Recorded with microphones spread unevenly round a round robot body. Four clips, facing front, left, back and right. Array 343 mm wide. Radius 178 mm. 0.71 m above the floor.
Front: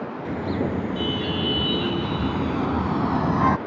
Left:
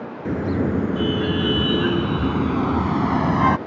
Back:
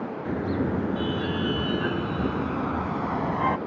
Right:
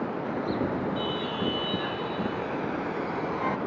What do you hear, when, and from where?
0.2 s a car horn: 90° left; by 3.6 s 60° left